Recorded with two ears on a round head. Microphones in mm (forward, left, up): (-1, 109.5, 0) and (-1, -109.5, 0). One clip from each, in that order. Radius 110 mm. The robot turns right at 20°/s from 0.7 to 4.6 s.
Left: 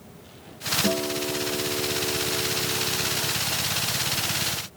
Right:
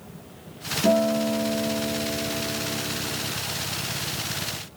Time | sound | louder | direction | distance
0.8 | a guitar | right 5 dB | 70° right | 2.5 m